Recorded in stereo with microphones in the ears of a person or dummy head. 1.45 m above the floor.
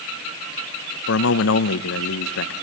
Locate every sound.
1.1 s a man speaking: 70° left (ahead or behind), 0.9 m